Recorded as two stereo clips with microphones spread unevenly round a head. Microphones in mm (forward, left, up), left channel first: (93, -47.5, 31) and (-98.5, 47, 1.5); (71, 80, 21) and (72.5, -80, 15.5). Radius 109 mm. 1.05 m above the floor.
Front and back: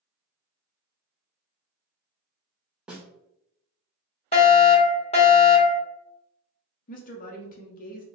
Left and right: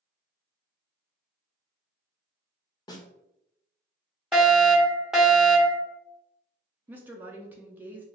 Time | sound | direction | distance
2.9 | a snare drum | 55° left | 0.7 m
4.3 | a fire alarm | 15° right | 1.0 m
6.9 | a woman speaking | 25° right | 0.5 m